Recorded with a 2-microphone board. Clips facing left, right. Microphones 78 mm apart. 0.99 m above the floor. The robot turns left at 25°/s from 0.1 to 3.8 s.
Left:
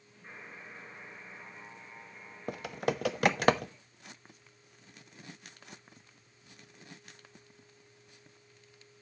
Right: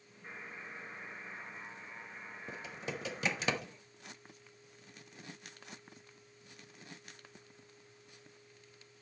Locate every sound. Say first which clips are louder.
0.2 s a buzzer: right 1 dB; 5° right, 6.5 m; by 3.5 s 85° right, 6.5 m
2.5 s typing on a keyboard: left 11 dB; 65° left (ahead or behind), 0.6 m; by 3.7 s 50° left (ahead or behind), 0.6 m